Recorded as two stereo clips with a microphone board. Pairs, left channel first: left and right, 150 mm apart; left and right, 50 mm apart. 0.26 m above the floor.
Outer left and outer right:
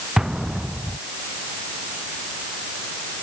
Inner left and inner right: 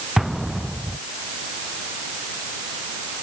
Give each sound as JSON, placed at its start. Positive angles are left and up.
{"t": 0.2, "sound": "an explosion", "side_deg": -5}